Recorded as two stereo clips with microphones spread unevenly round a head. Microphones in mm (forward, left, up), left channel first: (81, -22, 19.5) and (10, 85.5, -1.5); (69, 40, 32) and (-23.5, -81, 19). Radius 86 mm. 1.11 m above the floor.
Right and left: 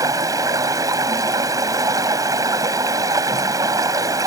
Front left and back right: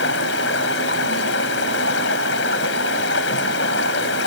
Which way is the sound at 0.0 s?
60° left.